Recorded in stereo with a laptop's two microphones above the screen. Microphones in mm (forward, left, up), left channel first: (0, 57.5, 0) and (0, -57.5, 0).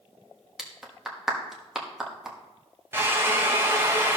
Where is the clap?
5° right (ahead or behind), 1.4 m.